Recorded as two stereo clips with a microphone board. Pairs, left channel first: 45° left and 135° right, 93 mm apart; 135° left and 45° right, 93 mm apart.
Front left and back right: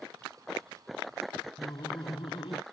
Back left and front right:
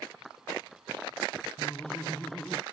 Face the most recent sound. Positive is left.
turn(degrees=50)